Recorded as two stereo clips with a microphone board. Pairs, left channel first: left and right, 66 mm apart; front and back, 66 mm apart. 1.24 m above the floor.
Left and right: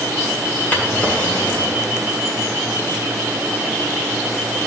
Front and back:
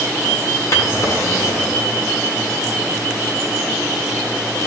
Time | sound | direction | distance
0.7 | a drawer | 30° left | 1.8 m